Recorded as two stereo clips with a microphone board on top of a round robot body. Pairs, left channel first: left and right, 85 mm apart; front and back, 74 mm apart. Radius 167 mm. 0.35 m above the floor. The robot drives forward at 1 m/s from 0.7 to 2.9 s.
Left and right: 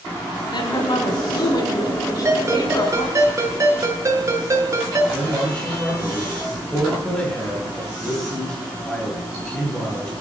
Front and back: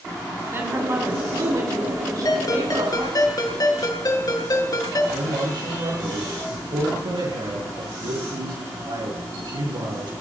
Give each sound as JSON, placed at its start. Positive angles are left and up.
{"t": 0.5, "sound": "a woman speaking", "azimuth_deg": 120, "distance_m": 4.0}
{"t": 2.2, "sound": "a ringtone", "azimuth_deg": -30, "distance_m": 5.0}
{"t": 5.1, "sound": "a man speaking", "azimuth_deg": 170, "distance_m": 8.0}